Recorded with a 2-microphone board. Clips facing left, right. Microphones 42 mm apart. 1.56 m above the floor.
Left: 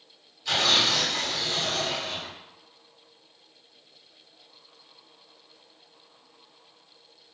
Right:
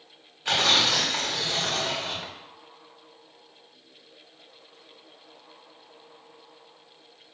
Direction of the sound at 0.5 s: 45° right (ahead or behind).